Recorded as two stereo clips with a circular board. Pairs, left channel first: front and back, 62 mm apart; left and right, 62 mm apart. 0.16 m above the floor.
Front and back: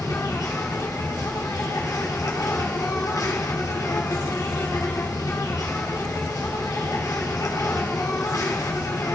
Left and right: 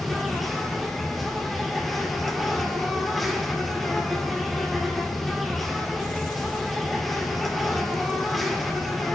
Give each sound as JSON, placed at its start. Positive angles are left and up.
{"t": 0.0, "sound": "an insect", "azimuth_deg": 0, "distance_m": 2.5}